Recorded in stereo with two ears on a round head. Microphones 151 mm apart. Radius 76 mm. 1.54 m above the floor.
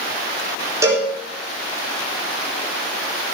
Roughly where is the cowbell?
Centre.